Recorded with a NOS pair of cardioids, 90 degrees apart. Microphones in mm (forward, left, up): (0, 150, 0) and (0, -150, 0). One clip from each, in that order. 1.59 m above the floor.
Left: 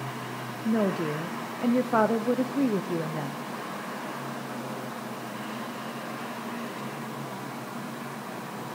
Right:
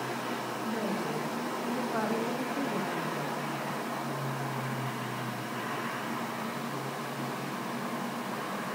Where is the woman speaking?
60° left, 0.6 m.